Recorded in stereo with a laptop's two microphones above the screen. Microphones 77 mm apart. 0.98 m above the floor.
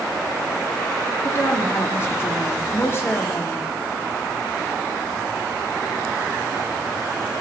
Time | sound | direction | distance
1.2 | a woman speaking | 35° left (ahead or behind) | 0.9 m